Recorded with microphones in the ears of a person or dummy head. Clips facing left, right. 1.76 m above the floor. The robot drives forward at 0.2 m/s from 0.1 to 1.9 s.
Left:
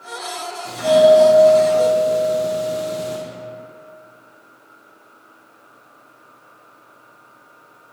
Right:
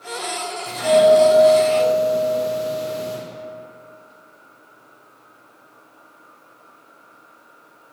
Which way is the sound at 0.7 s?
25° left (ahead or behind).